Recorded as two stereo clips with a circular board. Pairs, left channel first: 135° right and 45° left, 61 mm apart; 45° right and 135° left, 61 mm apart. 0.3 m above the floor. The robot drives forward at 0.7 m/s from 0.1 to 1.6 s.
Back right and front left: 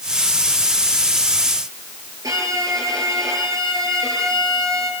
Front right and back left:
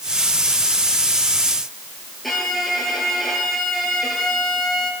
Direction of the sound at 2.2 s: 40° left.